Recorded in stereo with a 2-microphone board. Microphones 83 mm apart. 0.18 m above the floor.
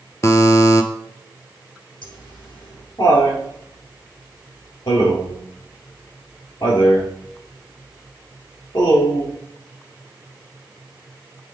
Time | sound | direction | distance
0.2 | a buzzer | 35° left (ahead or behind) | 0.6 m
2.0 | laughter | 65° left (ahead or behind) | 3 m